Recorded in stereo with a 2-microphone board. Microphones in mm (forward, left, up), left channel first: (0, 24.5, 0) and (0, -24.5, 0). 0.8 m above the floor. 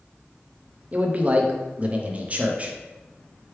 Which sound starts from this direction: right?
A man speaking, at 0.9 s.